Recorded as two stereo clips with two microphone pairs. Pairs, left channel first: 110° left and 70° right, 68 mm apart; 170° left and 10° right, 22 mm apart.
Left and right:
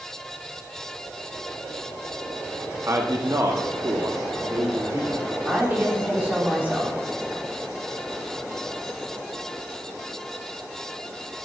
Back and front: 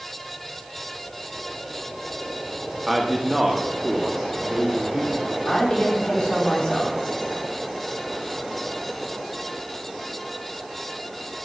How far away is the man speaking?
About 0.9 m.